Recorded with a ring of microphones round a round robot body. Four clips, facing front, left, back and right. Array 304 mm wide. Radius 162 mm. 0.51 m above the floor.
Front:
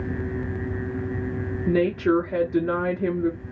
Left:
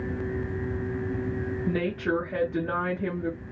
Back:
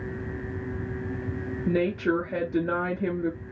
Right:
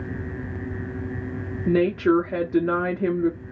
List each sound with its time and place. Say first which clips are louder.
1.7 s a woman speaking: right 10 dB, front 4 dB; 80° right, 1.3 m